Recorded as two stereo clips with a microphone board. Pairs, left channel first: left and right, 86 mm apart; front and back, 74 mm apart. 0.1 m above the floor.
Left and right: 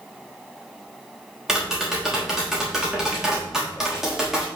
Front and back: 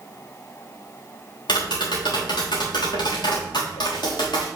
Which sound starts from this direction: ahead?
Tapping, at 1.5 s.